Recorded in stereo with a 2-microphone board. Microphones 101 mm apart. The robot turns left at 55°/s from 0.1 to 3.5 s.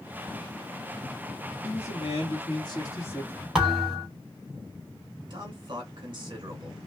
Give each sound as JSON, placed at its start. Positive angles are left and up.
{"t": 1.6, "sound": "a man speaking", "azimuth_deg": 105, "distance_m": 1.7}
{"t": 3.5, "sound": "a thud", "side_deg": -5, "distance_m": 2.5}
{"t": 5.3, "sound": "a man speaking", "side_deg": -45, "distance_m": 2.5}